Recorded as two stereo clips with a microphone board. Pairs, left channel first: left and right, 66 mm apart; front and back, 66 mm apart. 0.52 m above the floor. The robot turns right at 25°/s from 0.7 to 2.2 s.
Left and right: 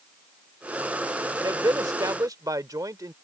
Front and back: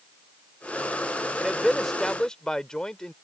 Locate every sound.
1.4 s a man speaking: 100° right; by 3.1 s 80° right